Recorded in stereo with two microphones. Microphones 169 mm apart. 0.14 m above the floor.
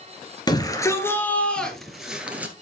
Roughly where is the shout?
Left.